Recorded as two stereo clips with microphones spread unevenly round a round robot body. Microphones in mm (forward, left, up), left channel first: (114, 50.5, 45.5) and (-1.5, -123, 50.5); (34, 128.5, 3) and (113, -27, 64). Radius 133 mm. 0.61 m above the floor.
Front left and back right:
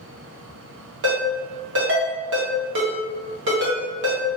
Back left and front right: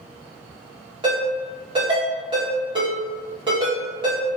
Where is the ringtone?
140° right, 0.9 m.